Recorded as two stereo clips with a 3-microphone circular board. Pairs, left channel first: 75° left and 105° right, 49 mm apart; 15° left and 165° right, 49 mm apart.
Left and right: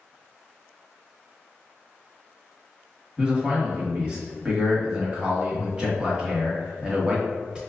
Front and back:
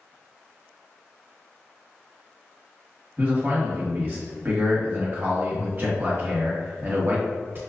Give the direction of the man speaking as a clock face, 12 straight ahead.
6 o'clock.